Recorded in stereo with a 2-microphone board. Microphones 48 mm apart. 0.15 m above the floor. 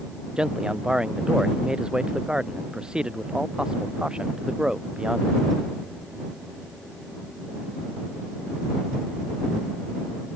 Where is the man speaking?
20° right (ahead or behind).